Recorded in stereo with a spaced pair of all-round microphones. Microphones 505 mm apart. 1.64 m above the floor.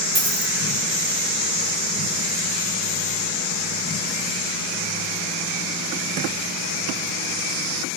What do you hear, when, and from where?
0.1 s a dropped coin: 25° right (ahead or behind), 1.0 m